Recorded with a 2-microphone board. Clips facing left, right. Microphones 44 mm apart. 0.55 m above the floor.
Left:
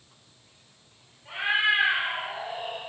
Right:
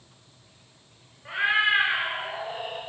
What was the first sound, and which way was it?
A cat meowing, 80° right.